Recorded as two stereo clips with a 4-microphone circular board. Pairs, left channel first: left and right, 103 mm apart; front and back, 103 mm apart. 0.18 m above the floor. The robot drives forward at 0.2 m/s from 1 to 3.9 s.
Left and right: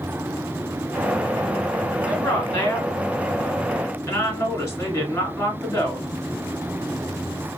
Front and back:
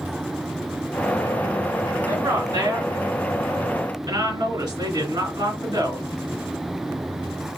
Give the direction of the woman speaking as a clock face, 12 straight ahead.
7 o'clock.